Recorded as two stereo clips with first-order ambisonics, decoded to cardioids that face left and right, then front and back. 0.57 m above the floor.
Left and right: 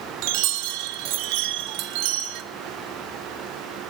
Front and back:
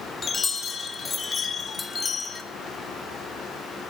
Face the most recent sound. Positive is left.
turn(degrees=-75)